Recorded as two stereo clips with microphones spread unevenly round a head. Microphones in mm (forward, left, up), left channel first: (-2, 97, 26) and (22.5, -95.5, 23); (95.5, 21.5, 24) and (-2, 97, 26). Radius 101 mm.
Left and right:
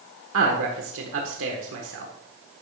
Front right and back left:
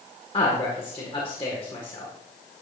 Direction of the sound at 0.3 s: 100° right.